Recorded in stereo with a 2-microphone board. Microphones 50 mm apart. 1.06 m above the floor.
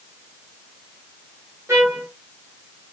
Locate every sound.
1.7 s a trumpet: 75° right (ahead or behind), 1.3 m